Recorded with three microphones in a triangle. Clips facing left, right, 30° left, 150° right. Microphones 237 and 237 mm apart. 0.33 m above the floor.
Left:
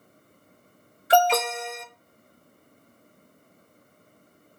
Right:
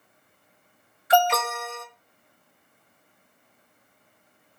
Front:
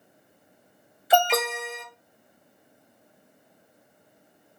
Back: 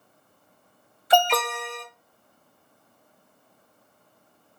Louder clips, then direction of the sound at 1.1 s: Left 1 dB, even; 110° left.